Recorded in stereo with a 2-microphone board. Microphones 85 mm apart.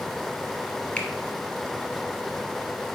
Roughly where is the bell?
No bell in this recording.